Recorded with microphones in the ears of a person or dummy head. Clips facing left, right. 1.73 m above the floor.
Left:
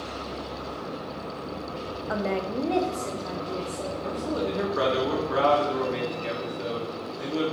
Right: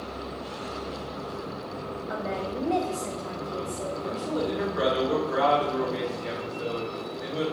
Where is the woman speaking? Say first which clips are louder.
Left 4 dB; 60° left (ahead or behind), 0.7 m; by 3.9 s 5° right (ahead or behind), 1.6 m.